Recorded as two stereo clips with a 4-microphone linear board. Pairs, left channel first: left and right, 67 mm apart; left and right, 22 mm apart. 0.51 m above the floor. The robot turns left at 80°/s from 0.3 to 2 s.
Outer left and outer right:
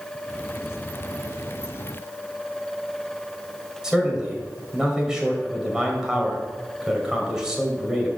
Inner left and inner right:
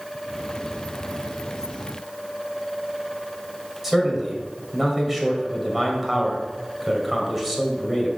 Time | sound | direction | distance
3.8 | a man speaking | 10° right (ahead or behind) | 1.9 m